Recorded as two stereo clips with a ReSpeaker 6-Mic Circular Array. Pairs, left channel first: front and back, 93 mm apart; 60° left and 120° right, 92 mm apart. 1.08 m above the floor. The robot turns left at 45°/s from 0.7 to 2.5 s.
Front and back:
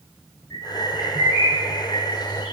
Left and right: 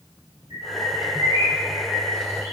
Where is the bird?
65° left, 6 m; by 2.5 s 15° right, 6 m.